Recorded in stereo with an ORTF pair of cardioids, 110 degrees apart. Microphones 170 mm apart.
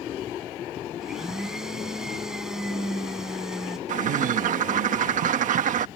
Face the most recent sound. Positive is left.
turn(degrees=-50)